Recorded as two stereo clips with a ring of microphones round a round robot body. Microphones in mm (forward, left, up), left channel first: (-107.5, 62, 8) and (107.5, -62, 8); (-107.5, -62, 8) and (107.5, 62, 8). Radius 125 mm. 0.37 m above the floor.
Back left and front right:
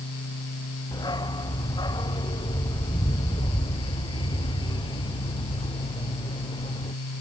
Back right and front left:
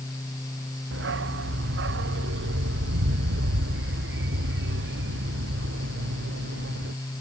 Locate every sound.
0.9 s a dog barking: 75° left; by 6.9 s 80° left